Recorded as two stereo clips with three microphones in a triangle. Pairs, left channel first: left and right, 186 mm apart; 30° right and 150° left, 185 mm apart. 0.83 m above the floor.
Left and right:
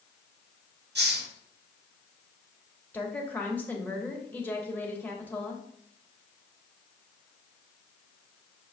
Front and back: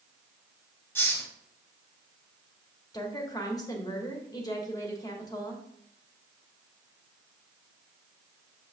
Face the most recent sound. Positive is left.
turn(degrees=20)